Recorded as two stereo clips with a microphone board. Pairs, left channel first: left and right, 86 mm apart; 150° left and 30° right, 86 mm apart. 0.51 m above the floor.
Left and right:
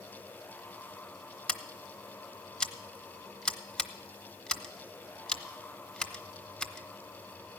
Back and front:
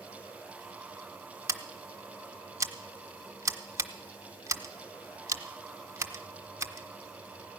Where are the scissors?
15° left, 0.9 m.